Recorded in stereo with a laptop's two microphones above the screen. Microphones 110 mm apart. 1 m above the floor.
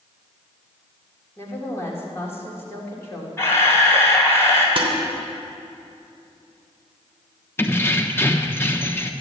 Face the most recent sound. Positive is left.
turn(degrees=25)  # may be behind; listen again after turning